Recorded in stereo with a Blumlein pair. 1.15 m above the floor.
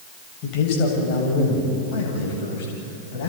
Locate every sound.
0.4 s a man speaking: 40° left, 7 m; by 3.3 s 50° left, 8 m